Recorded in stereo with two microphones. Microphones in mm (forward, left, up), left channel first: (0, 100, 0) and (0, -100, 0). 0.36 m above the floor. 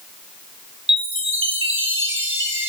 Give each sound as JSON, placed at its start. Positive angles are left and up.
{"t": 0.9, "sound": "a chime", "side_deg": -85, "distance_m": 1.7}